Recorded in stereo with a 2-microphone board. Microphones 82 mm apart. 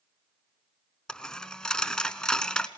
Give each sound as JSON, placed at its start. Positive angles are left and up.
{"t": 1.1, "sound": "a dropped coin", "side_deg": 10, "distance_m": 0.7}